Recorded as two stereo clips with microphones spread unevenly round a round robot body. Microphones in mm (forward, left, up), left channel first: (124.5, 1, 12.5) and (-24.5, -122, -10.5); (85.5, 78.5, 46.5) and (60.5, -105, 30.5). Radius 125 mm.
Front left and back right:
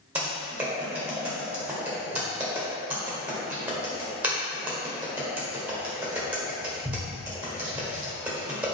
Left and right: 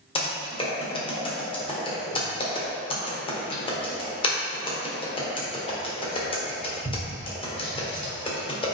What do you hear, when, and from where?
0.1 s typing on a keyboard: 145° left, 1.3 m